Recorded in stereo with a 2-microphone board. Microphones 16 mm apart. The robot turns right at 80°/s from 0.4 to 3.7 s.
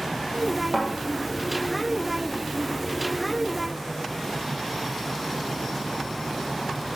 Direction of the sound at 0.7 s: 30° left (ahead or behind).